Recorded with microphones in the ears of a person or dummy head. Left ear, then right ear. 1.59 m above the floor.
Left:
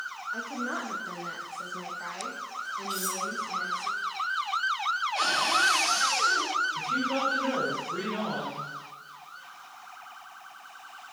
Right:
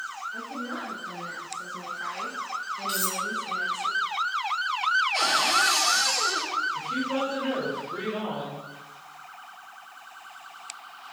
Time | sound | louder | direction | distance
0.3 | a woman speaking | left 1 dB | 55° left (ahead or behind) | 3 m
2.9 | cutlery clinking | right 5 dB | 50° right (ahead or behind) | 6 m
5.1 | a cupboard door | right 2 dB | 60° right (ahead or behind) | 5 m
6.8 | a woman speaking | even | 5° left (ahead or behind) | 7 m